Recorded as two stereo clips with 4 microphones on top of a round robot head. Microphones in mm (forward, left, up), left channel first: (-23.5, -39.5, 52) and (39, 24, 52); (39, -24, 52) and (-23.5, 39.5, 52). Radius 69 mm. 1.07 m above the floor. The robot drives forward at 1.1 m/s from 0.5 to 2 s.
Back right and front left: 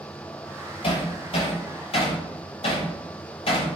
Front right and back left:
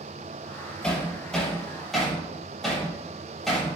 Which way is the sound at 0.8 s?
125° right.